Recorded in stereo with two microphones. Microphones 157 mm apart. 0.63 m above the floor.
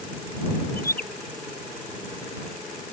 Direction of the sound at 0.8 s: 85° left.